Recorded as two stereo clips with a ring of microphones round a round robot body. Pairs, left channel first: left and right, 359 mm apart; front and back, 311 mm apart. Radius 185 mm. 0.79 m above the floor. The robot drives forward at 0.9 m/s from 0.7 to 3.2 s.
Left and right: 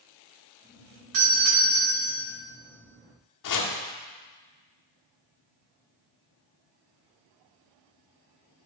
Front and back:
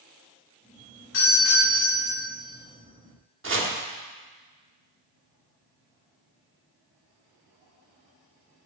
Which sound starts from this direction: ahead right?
A doorbell, at 1.1 s.